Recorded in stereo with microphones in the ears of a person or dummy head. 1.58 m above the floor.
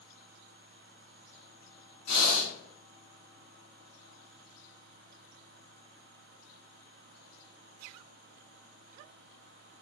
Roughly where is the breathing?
Left.